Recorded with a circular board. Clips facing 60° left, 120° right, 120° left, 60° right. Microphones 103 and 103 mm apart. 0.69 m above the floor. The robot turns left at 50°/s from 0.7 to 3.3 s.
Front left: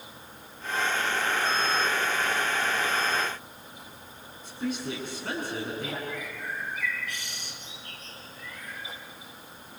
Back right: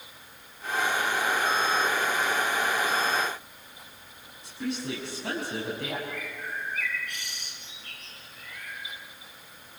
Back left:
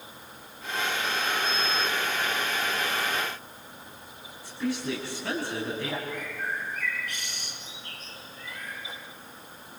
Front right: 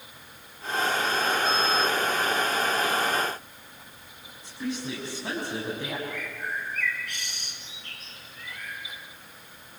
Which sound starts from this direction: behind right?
A woman speaking, at 4.4 s.